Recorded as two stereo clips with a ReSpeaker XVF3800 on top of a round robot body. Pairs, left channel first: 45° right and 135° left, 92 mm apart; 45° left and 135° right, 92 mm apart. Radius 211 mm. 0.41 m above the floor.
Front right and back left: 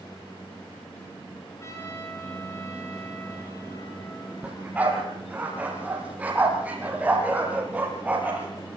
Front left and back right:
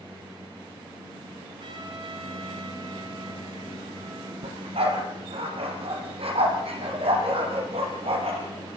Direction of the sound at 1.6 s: 105° right.